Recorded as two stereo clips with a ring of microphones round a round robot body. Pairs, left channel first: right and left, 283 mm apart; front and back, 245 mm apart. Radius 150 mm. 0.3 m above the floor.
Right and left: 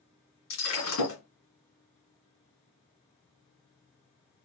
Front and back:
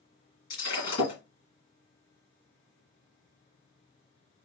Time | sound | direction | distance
0.5 | breaking glass | 55° right | 2 m